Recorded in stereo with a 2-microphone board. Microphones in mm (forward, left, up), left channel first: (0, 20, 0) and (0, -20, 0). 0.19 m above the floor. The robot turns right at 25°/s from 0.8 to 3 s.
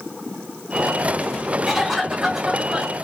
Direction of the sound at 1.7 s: Centre (ahead or behind).